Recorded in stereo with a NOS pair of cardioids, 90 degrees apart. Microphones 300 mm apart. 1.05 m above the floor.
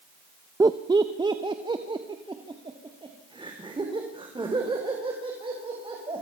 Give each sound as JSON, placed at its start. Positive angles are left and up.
{"t": 0.6, "sound": "laughter", "azimuth_deg": -10, "distance_m": 0.7}